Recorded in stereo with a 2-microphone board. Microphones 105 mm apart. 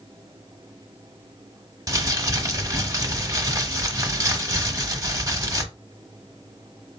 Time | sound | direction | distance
1.9 | crumpling | 35° right (ahead or behind) | 0.9 m